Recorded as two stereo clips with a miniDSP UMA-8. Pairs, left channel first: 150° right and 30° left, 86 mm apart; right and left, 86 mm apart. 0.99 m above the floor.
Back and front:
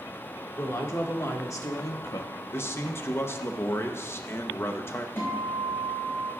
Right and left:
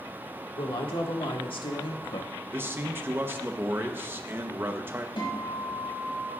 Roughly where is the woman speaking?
Right.